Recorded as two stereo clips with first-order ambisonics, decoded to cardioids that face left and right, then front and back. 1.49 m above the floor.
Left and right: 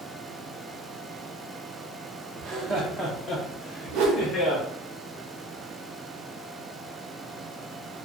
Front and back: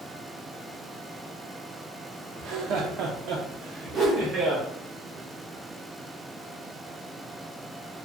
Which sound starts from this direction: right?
A whoosh, at 3.9 s.